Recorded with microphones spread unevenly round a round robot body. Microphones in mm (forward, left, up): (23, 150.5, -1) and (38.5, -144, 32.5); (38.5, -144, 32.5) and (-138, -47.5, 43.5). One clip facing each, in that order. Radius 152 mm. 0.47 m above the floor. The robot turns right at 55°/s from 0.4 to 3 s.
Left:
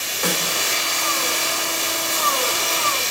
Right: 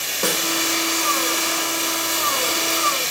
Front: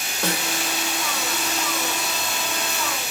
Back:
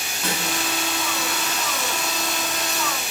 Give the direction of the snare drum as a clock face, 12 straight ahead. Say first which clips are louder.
Right 1 dB, front 2 dB; 1 o'clock.